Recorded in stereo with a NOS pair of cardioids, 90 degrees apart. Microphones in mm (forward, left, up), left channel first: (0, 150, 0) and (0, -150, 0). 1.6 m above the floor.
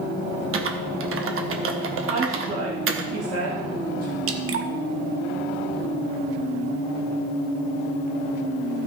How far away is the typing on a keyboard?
About 1.6 m.